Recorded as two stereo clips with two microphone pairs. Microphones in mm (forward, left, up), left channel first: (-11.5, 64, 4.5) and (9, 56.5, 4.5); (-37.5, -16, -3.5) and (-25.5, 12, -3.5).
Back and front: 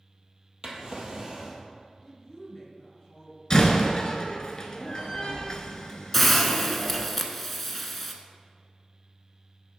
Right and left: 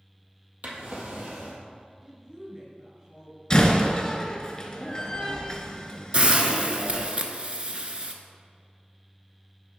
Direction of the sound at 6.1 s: 85° left.